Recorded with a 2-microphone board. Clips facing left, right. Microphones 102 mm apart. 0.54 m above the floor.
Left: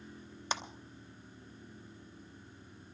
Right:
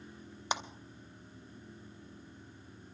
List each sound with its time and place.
0.5 s a clap: 15° right (ahead or behind), 1.1 m